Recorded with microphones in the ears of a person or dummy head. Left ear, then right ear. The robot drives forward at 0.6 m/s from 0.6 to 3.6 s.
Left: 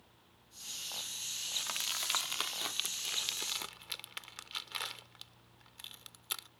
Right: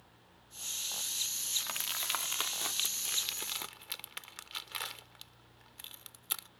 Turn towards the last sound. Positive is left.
turn(degrees=-5)  # may be behind; listen again after turning